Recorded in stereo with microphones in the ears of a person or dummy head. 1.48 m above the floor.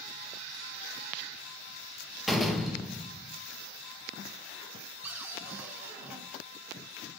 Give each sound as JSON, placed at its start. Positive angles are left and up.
{"t": 2.3, "sound": "a door slam", "side_deg": 0, "distance_m": 1.3}
{"t": 5.0, "sound": "a cupboard door", "side_deg": -10, "distance_m": 3.0}